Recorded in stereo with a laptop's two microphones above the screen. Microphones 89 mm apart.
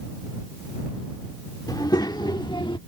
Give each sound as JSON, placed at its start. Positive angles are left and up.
{"t": 1.7, "sound": "a child speaking", "side_deg": 45}